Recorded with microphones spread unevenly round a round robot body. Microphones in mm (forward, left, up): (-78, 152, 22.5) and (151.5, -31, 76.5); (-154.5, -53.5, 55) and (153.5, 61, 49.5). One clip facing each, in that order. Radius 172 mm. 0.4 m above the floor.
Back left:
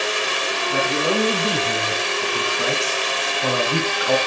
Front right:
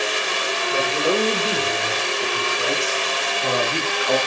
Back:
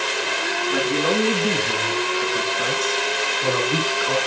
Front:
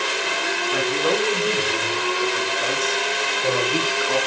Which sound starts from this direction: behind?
A man speaking, at 0.7 s.